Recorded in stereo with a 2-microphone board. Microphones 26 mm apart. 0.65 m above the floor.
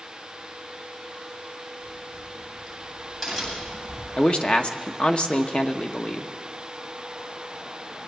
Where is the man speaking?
45° left (ahead or behind), 0.9 m.